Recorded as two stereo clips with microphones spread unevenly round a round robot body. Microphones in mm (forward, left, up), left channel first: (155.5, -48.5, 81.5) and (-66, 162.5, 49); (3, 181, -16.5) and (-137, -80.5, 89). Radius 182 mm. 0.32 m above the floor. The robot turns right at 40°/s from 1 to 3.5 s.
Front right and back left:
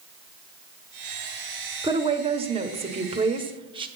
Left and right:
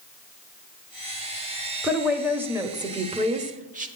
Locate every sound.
1.8 s a woman speaking: 100° left, 1.1 m; by 3.9 s 165° left, 1.1 m